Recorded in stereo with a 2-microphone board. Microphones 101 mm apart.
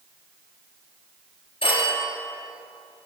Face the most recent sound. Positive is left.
turn(degrees=65)  # may be behind; listen again after turning